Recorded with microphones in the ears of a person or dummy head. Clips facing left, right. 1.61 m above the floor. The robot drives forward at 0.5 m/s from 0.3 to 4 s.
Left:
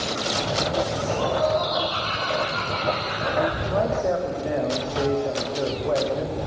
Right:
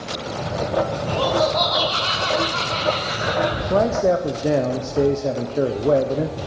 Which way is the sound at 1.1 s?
60° right (ahead or behind).